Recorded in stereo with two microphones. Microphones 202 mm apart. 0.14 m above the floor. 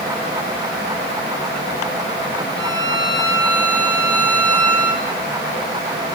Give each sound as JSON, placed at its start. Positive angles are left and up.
{"t": 2.6, "sound": "a violin", "side_deg": -20, "distance_m": 6.5}